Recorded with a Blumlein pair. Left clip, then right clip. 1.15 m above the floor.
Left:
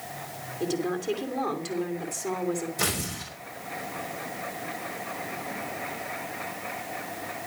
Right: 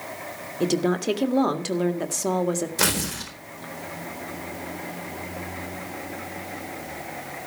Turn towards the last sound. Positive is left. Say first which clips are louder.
# right 5 dB
turn(degrees=-30)